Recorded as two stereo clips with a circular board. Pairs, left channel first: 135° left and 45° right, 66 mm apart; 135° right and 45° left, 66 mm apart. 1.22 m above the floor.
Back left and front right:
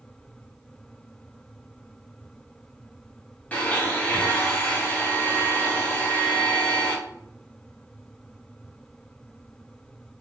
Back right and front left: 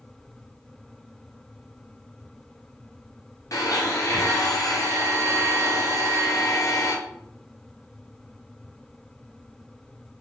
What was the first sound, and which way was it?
A blender, 155° right.